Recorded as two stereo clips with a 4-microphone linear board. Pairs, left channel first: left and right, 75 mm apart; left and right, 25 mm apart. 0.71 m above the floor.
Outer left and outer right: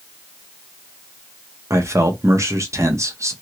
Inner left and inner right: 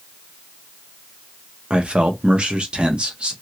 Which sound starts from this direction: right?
A man speaking, at 1.7 s.